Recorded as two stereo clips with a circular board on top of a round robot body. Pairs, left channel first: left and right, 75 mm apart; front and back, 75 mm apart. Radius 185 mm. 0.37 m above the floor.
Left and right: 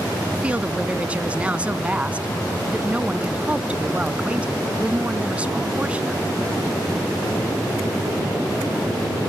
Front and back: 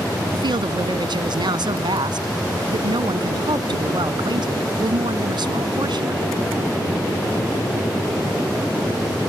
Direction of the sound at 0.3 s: 165° right.